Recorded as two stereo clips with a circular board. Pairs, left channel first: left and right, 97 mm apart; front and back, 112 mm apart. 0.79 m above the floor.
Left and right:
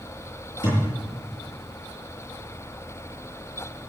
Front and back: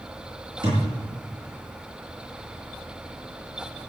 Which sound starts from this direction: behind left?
A thud, at 0.6 s.